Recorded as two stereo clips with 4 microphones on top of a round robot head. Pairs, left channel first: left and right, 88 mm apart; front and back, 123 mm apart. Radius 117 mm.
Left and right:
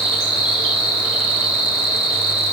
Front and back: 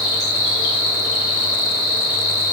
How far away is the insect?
About 1.1 m.